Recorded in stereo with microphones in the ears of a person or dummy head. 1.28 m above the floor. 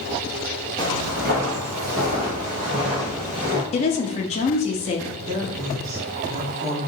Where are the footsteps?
35° right (ahead or behind), 1.6 m; by 3.6 s 30° right (ahead or behind), 2 m.